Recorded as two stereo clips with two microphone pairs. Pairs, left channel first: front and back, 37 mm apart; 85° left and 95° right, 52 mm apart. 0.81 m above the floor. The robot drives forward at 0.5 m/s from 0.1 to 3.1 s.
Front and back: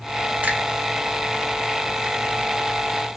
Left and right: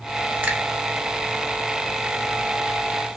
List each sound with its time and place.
0.4 s a finger snap: 150° right, 1.0 m